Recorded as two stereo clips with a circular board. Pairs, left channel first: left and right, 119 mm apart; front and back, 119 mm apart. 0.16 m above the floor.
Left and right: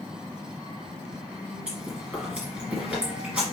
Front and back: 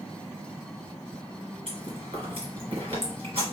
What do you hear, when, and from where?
1.7 s chewing: 170° right, 2 m